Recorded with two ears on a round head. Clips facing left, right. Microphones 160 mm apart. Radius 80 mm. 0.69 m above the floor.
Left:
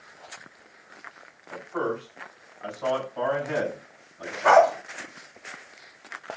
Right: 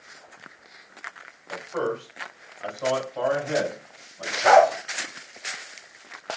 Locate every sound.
1.5 s a man speaking: 60° right (ahead or behind), 3 m
4.4 s a dog barking: 25° right (ahead or behind), 0.9 m